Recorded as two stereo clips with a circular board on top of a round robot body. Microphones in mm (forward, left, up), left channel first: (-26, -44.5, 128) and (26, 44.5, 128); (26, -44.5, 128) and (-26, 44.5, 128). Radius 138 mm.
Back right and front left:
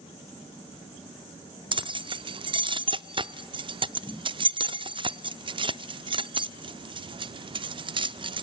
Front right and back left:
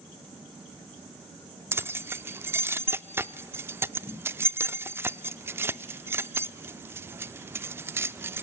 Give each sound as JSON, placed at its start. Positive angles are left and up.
{"t": 1.7, "sound": "keys jangling", "azimuth_deg": 60, "distance_m": 0.6}